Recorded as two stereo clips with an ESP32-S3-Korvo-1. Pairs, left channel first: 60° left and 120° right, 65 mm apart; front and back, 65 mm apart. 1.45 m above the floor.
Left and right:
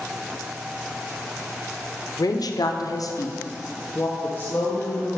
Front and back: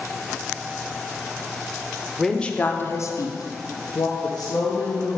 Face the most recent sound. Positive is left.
turn(degrees=-10)